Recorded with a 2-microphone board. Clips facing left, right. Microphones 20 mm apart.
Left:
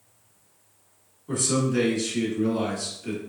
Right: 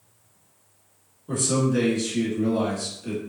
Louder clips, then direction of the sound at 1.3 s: Right 1 dB; centre (ahead or behind).